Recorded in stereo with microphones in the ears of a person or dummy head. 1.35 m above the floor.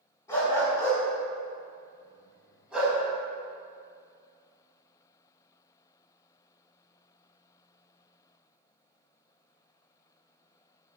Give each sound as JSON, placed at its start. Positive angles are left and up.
{"t": 0.3, "sound": "a dog barking", "side_deg": 15, "distance_m": 4.5}